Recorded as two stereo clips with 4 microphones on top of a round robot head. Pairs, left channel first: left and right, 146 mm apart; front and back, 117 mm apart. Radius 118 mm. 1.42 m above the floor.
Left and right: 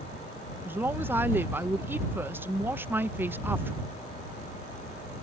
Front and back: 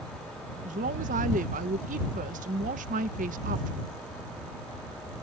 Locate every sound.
0.7 s a woman speaking: 165° right